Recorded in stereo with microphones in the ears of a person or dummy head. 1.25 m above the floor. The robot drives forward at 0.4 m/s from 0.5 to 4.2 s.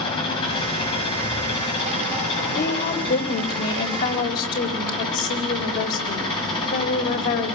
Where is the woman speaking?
60° left (ahead or behind), 4 m; by 7.5 s 50° left (ahead or behind), 4.5 m.